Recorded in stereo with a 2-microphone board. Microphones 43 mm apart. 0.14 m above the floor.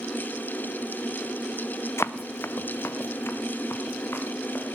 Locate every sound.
2.0 s running footsteps: 80° left, 0.5 m; by 4.7 s 60° left (ahead or behind), 3 m